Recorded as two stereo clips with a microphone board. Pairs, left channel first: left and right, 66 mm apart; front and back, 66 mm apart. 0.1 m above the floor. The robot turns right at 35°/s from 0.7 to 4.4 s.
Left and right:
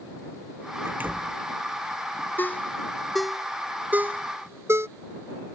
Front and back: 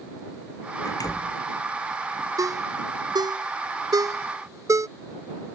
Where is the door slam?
35° right; by 1.4 s 15° right.